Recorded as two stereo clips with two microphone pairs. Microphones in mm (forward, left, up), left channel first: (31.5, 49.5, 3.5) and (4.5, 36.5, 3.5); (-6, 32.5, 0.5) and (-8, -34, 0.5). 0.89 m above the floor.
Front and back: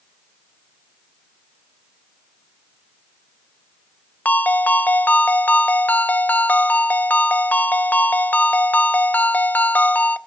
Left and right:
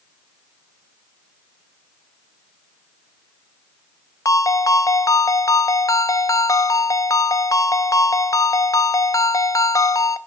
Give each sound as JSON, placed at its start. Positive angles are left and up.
{"t": 4.2, "sound": "a ringtone", "azimuth_deg": 50, "distance_m": 0.6}